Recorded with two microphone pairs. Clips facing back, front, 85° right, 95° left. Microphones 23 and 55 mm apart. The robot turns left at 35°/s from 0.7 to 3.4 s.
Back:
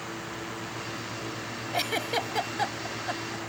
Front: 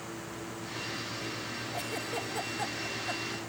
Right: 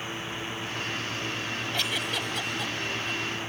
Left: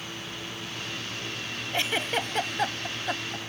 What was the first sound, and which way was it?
A giggle, 160° left.